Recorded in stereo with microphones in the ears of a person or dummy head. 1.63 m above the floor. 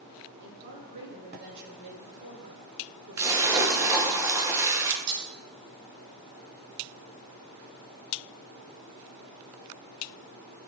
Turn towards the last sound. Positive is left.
turn(degrees=-70)  # may be behind; listen again after turning